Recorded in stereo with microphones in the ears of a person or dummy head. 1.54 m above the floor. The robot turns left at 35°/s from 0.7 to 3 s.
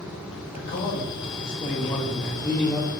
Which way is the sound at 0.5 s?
60° left.